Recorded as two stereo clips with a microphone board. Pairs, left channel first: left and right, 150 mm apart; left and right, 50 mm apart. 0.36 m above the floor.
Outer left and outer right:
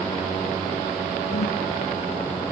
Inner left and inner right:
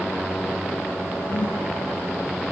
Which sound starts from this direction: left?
A whoosh, at 1.3 s.